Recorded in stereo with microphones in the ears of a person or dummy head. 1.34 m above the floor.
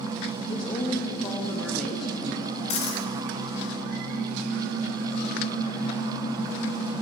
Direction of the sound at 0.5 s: 25° left (ahead or behind).